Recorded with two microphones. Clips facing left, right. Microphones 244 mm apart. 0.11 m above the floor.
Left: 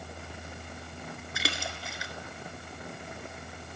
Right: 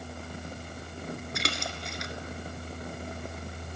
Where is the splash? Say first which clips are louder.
Right 2 dB; 5° left (ahead or behind), 0.7 m.